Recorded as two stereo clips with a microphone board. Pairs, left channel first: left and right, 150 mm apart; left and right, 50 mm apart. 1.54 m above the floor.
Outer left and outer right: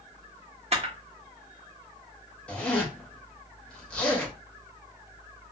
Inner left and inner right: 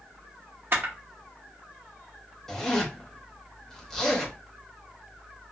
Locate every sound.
0.7 s a camera shutter: 45° right (ahead or behind), 0.9 m
2.5 s a zipper: 5° left (ahead or behind), 0.9 m